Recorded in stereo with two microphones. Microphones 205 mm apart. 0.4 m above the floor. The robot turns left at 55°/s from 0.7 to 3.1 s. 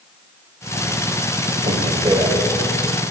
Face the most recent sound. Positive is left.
turn(degrees=155)